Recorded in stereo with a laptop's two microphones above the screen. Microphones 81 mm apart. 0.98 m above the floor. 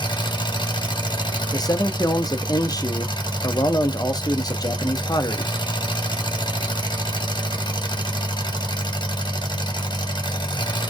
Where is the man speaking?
55° left (ahead or behind), 0.7 m.